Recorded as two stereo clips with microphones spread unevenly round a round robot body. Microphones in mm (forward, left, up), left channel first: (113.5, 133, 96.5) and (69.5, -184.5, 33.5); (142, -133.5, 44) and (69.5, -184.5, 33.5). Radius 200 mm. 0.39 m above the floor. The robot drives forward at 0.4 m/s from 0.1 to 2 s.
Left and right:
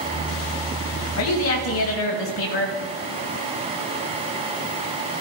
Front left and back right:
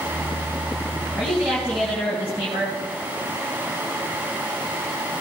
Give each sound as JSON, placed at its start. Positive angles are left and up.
{"t": 1.2, "sound": "a woman speaking", "azimuth_deg": 135, "distance_m": 2.0}